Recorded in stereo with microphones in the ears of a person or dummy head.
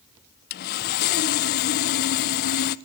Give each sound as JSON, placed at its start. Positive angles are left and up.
{"t": 0.5, "sound": "sawing", "side_deg": 55, "distance_m": 0.7}